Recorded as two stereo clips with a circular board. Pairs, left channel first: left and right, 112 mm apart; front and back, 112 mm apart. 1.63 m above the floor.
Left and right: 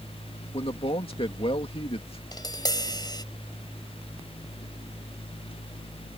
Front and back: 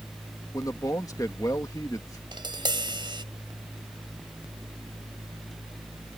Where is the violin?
No violin in this recording.